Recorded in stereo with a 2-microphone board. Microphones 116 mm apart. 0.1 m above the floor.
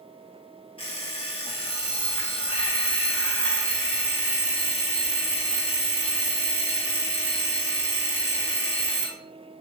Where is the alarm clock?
55° left (ahead or behind), 1.1 m.